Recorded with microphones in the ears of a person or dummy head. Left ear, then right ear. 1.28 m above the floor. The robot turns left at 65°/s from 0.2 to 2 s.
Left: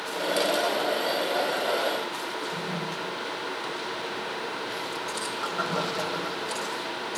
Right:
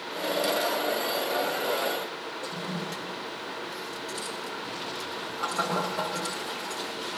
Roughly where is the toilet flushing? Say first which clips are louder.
Left 3 dB; right.